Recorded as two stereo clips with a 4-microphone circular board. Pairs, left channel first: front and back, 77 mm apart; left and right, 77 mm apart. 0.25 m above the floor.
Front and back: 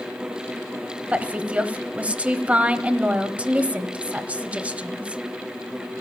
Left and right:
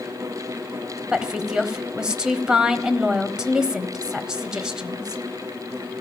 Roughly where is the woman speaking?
Behind right.